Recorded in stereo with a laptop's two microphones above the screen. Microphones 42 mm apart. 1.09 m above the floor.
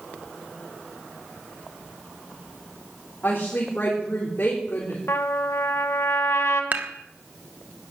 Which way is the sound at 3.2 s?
40° left (ahead or behind).